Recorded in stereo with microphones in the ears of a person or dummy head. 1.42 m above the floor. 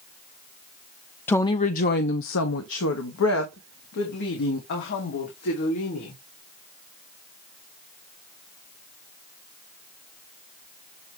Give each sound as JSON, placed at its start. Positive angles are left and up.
{"t": 1.3, "sound": "a woman speaking", "side_deg": 5, "distance_m": 0.6}